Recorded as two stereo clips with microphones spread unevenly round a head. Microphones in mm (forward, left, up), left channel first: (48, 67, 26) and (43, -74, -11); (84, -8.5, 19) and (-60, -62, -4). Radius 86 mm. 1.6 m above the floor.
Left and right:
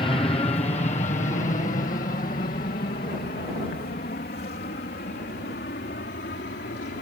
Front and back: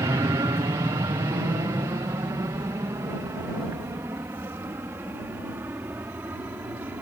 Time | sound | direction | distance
0.0 | an aircraft | 145° left | ?